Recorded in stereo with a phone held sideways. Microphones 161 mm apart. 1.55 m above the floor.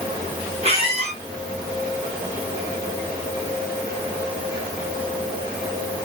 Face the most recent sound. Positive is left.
turn(degrees=-40)  # may be behind; listen again after turning